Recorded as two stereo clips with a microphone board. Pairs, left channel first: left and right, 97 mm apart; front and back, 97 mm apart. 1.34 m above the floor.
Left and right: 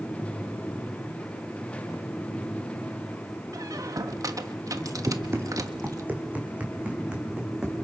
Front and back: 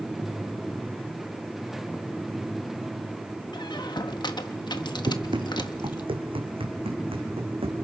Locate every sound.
3.5 s a squeak: 35° right, 1.3 m
5.1 s running footsteps: 150° right, 3 m; by 7.8 s 170° right, 4.5 m